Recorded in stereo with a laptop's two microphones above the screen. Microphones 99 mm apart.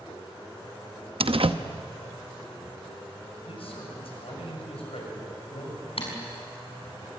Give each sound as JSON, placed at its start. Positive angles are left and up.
{"t": 1.2, "sound": "a door slam", "side_deg": -70, "distance_m": 0.8}
{"t": 3.4, "sound": "a man speaking", "side_deg": 75, "distance_m": 6.5}
{"t": 6.0, "sound": "typing on a keyboard", "side_deg": 75, "distance_m": 5.5}